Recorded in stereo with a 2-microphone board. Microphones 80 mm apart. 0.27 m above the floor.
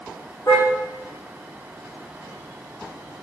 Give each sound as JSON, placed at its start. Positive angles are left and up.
{"t": 0.5, "sound": "a car horn", "side_deg": 40, "distance_m": 6.0}